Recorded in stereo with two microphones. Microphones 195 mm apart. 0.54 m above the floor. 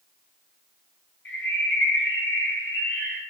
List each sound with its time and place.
1.2 s a bird: 75° left (ahead or behind), 3.5 m